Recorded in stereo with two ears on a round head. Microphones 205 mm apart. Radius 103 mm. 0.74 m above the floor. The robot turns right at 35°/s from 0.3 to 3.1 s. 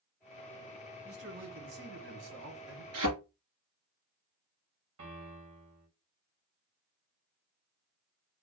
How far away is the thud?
About 2.5 m.